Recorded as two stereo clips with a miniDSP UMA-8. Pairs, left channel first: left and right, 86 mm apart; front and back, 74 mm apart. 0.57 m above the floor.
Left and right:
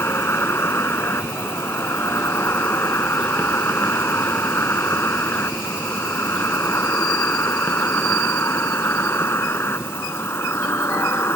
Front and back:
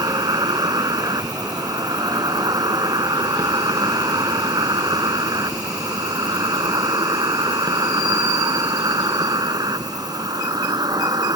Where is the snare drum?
I don't hear a snare drum.